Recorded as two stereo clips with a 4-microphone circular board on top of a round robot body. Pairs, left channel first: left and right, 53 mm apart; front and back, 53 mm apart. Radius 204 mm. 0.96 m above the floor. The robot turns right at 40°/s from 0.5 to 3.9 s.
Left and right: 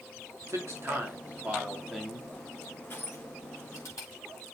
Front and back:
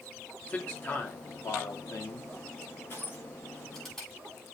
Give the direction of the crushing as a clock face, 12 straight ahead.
10 o'clock.